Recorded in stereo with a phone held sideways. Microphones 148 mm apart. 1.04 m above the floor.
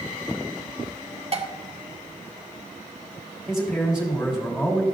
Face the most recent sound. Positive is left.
turn(degrees=5)  # may be behind; listen again after turning